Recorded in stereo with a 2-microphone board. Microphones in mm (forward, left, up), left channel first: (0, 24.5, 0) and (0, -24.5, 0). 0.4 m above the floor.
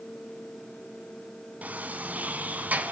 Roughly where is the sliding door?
Right.